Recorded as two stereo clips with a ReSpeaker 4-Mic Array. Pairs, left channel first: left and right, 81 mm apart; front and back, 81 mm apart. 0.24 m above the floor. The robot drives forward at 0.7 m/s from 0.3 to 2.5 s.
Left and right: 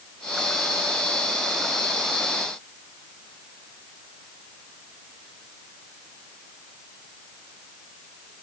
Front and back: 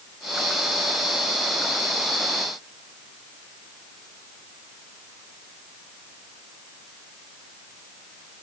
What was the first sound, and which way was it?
Only background noise.